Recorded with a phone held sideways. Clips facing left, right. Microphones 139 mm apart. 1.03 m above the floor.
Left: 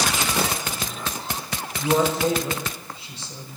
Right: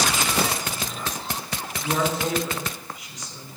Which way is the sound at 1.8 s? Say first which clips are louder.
Left 5 dB; 30° left (ahead or behind).